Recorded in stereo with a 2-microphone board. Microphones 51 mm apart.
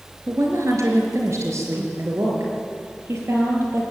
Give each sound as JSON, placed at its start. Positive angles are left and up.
{"t": 0.3, "sound": "a woman speaking", "side_deg": -75, "distance_m": 4.0}